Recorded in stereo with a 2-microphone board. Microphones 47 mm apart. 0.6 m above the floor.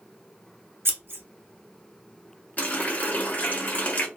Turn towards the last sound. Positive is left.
turn(degrees=35)  # may be behind; listen again after turning